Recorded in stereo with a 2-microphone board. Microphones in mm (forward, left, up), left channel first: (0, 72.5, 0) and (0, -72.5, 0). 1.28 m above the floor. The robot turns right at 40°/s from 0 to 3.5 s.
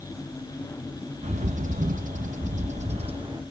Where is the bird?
120° right, 0.7 m; by 3.4 s 35° right, 0.7 m.